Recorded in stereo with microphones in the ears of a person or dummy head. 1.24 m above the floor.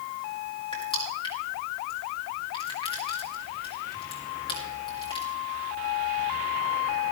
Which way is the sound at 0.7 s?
25° left (ahead or behind).